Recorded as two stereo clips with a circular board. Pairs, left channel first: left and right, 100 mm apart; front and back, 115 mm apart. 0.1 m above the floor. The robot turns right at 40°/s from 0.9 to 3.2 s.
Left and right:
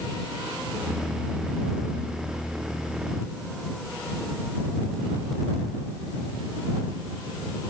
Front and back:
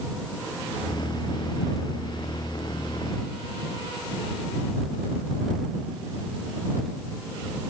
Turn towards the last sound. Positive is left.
No sound to turn to.